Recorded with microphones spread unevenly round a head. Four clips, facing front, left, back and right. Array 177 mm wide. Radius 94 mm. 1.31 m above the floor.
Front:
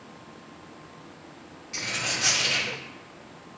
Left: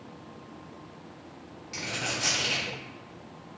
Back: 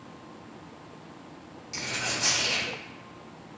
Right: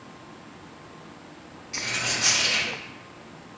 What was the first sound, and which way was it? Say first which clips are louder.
A dropped coin: right 2 dB, front 1 dB; 70° left.